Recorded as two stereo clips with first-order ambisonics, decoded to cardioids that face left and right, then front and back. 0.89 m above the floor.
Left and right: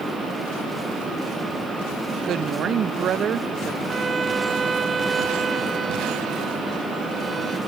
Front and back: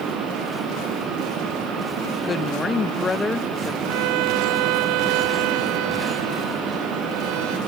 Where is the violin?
165° right.